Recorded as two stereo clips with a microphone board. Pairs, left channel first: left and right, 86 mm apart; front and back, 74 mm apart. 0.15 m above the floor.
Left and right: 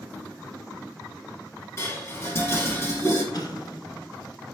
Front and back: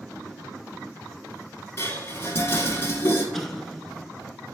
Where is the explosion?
85° left, 0.8 m.